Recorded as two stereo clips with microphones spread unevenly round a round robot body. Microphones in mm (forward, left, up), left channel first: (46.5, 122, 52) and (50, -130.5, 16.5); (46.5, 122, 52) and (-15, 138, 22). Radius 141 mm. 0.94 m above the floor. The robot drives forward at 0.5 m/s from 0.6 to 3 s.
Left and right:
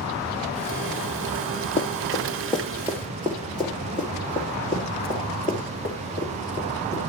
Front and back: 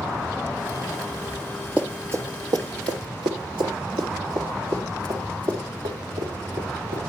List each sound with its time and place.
1.8 s running footsteps: 60° left, 1.1 m; by 7.0 s 155° right, 5 m